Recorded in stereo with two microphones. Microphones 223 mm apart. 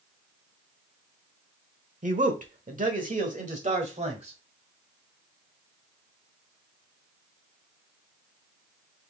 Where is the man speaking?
35° right (ahead or behind), 1.0 m; by 4.4 s 30° right (ahead or behind), 1.8 m.